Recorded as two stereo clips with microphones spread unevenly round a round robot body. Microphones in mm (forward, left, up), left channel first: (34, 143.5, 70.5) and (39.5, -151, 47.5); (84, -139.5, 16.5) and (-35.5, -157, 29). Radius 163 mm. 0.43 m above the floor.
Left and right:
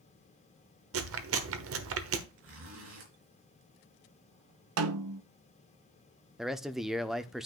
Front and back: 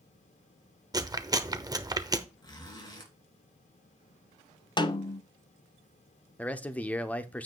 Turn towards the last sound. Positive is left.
turn(degrees=-15)